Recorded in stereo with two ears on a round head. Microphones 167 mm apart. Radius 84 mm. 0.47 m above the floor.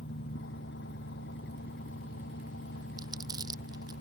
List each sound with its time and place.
0.0 s an engine running: 65° left (ahead or behind)
3.0 s crumpling: 20° right (ahead or behind)